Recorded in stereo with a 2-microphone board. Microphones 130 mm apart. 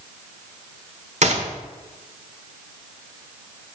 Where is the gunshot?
60° right (ahead or behind), 1.1 m.